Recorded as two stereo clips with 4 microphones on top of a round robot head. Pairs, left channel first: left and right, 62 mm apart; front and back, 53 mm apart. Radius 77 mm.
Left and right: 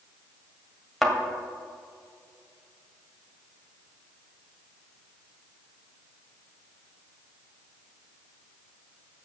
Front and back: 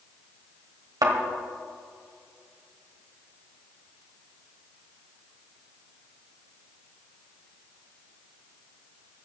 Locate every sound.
1.0 s a thud: straight behind, 1.9 m